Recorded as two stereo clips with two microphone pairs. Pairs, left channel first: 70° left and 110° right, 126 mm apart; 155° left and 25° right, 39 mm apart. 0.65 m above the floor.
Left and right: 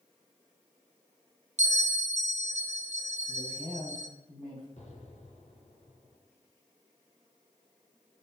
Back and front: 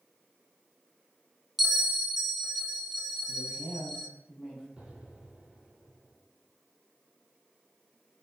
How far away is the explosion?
About 1.9 m.